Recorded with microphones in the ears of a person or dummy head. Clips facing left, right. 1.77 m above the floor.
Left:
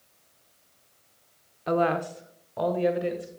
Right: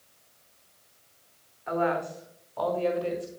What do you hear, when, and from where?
1.7 s a woman speaking: 45° left (ahead or behind), 0.8 m; by 3.3 s 20° left (ahead or behind), 1.8 m